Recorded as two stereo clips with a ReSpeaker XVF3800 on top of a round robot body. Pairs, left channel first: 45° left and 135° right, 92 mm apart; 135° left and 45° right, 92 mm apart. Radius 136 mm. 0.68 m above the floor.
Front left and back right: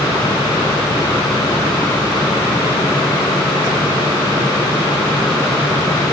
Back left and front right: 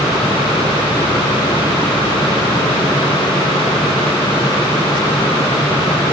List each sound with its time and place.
Only background noise.